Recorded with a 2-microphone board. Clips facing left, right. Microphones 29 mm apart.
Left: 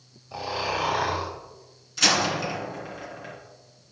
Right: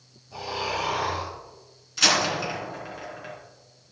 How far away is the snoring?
About 5.5 m.